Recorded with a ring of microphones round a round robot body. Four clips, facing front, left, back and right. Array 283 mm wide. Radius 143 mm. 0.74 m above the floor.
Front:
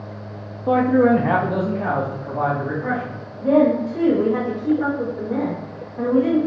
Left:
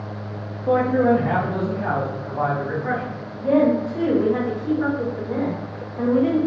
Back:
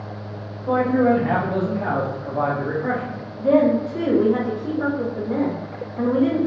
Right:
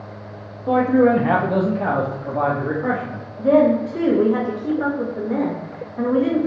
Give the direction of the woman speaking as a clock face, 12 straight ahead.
4 o'clock.